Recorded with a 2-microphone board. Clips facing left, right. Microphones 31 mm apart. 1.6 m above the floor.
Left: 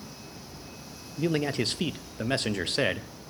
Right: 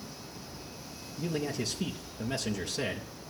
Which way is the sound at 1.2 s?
50° left (ahead or behind).